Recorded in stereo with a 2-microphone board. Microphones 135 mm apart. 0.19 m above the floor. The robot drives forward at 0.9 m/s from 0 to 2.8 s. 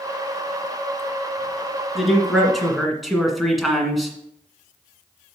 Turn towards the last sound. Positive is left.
turn(degrees=0)  # may be behind; listen again after turning